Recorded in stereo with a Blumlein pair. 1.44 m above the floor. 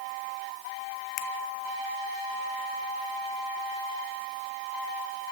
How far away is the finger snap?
About 0.8 m.